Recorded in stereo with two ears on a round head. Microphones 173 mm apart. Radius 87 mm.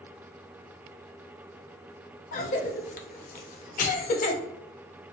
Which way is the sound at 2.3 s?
40° left (ahead or behind).